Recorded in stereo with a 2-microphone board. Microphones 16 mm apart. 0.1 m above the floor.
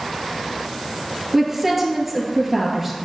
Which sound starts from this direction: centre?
A woman speaking, at 1.3 s.